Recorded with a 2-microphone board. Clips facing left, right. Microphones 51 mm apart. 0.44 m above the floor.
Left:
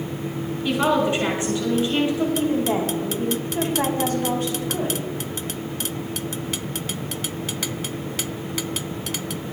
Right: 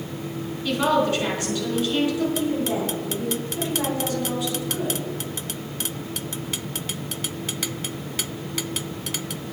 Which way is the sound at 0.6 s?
20° left (ahead or behind).